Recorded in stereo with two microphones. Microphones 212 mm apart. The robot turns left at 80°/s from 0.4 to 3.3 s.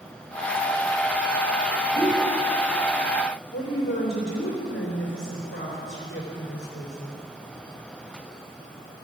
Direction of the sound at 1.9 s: 70° left (ahead or behind).